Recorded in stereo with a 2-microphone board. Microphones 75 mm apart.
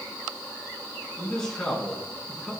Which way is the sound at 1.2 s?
5° left (ahead or behind).